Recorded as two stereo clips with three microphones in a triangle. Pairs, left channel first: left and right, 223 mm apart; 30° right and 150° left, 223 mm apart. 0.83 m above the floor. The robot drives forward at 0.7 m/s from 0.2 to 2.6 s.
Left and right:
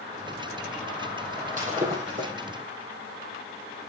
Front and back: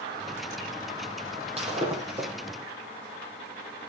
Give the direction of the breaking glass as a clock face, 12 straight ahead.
5 o'clock.